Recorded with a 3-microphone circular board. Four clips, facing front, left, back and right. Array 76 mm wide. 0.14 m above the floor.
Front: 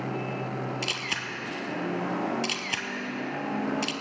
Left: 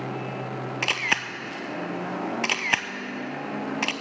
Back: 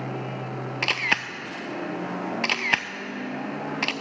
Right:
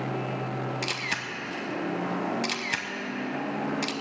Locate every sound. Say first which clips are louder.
0.8 s a camera shutter: left 5 dB, back 6 dB; 140° left, 0.6 m